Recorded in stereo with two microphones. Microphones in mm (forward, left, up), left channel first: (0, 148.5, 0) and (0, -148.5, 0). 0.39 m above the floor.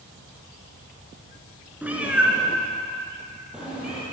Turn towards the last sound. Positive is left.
turn(degrees=-5)  # may be behind; listen again after turning